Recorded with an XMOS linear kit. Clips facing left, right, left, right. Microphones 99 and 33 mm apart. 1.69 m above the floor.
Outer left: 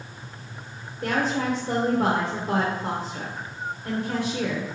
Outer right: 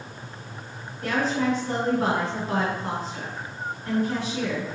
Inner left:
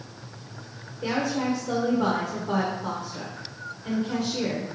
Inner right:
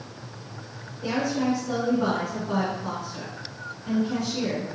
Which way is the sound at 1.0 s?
50° left (ahead or behind).